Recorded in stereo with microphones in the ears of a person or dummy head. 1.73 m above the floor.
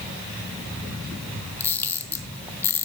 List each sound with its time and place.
1.6 s a camera shutter: 10° left (ahead or behind), 0.6 m